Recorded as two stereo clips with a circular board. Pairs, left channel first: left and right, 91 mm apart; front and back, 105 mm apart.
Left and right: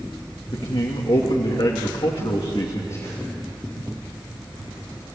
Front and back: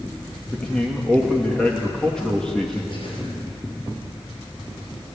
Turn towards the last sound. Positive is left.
turn(degrees=35)